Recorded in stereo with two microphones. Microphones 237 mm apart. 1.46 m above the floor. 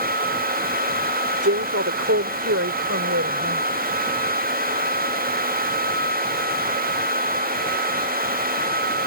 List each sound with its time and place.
1.4 s a woman speaking: 80° right; by 3.7 s 85° right